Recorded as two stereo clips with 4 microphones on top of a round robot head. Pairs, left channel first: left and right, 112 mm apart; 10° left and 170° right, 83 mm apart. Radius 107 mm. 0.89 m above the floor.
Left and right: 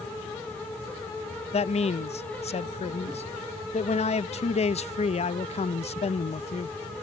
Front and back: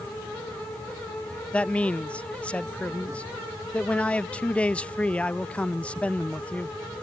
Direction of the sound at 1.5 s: 85° left.